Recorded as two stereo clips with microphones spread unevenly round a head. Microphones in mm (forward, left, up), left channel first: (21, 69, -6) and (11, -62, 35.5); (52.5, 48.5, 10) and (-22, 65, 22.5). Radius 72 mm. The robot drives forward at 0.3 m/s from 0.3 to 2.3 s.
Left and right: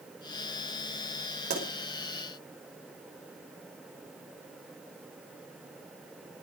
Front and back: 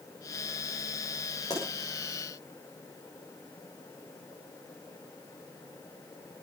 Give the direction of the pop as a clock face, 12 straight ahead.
3 o'clock.